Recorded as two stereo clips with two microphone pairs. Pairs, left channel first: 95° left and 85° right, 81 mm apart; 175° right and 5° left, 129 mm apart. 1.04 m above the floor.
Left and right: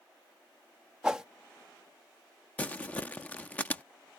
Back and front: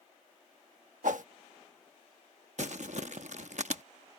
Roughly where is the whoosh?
Ahead.